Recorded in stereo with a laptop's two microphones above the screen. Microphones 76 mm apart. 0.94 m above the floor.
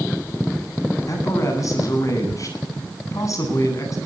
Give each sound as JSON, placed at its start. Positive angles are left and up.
{"t": 1.1, "sound": "a man speaking", "side_deg": 45, "distance_m": 9.5}